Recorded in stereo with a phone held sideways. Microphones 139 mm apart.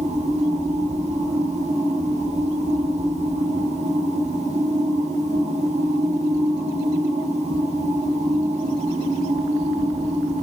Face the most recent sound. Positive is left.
turn(degrees=-55)  # may be behind; listen again after turning